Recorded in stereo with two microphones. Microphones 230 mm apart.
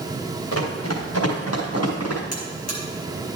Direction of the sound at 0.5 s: 75° left (ahead or behind).